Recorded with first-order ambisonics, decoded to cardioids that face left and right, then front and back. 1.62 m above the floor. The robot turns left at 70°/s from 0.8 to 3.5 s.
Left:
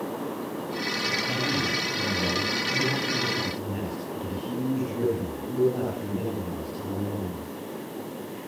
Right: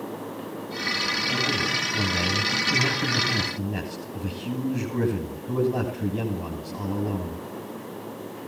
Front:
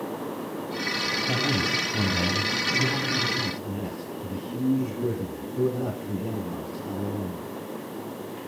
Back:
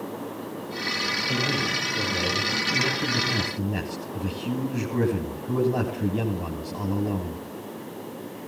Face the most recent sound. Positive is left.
turn(degrees=-135)